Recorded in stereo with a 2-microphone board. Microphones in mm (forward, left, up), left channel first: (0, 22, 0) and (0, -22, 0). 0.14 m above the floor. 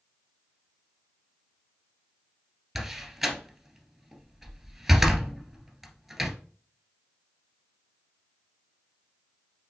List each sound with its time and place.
2.8 s a door slam: 5° right (ahead or behind), 1.9 m